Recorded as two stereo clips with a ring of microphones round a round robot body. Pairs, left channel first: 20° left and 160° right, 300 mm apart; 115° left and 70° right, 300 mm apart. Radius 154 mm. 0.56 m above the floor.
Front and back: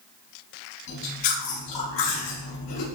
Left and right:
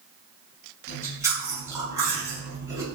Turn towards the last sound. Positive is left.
turn(degrees=15)